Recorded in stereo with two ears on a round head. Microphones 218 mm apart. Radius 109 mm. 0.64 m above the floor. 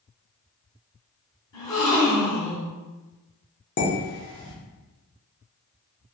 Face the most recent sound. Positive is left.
turn(degrees=50)  # may be behind; listen again after turning